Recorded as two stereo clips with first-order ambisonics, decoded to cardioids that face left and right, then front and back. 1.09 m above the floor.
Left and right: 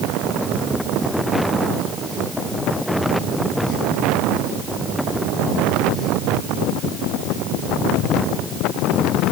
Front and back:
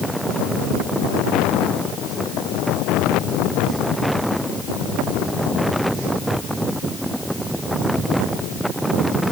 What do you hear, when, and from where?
Only background noise.